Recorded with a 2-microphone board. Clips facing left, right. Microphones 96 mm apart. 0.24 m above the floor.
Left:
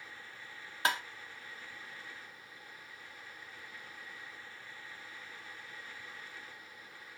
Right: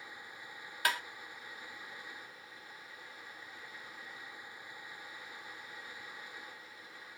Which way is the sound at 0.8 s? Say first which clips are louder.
Left 1 dB; 25° left (ahead or behind).